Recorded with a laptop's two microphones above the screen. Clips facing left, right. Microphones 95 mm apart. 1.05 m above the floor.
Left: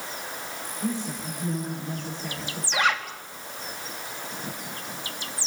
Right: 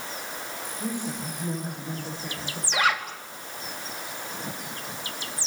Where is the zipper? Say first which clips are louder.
Even; 5° right (ahead or behind), 4.5 m.